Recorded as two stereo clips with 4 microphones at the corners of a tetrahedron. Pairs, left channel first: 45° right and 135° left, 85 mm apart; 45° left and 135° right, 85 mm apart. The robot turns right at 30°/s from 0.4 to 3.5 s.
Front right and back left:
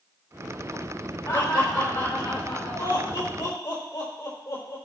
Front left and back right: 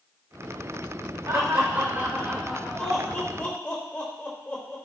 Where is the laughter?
85° right, 3.5 m; by 4.8 s 20° right, 3.5 m.